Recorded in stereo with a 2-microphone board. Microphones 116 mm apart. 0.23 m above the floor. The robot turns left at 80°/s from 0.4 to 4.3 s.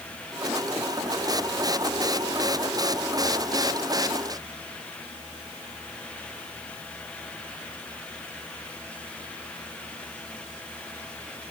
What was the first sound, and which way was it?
Only background noise.